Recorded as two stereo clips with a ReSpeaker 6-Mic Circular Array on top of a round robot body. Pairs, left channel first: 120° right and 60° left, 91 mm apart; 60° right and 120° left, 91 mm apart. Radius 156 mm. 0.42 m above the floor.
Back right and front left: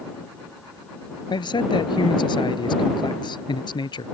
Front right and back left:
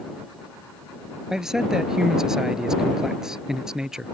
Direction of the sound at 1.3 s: 155° right.